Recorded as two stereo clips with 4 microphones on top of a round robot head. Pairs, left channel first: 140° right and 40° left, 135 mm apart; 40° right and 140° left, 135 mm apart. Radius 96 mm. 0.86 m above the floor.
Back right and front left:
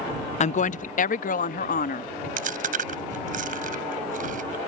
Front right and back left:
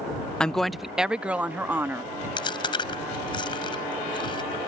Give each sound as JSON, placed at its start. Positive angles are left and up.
{"t": 0.4, "sound": "a woman speaking", "azimuth_deg": -125}
{"t": 2.4, "sound": "chewing", "azimuth_deg": 15}